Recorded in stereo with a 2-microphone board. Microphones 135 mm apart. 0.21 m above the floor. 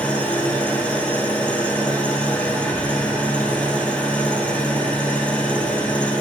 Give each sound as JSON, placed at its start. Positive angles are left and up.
{"t": 0.0, "sound": "an engine running", "side_deg": 10, "distance_m": 1.4}